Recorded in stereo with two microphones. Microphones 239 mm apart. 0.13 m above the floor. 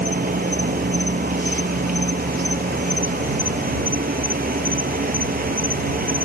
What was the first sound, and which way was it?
An insect, 40° right (ahead or behind).